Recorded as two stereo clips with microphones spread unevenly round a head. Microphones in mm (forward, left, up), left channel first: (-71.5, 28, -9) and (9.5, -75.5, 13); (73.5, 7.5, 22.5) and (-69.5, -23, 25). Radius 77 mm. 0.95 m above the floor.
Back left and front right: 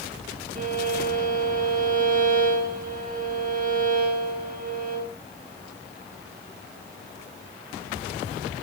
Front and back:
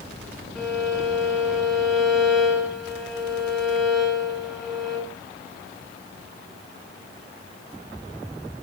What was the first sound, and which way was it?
A violin, 80° right.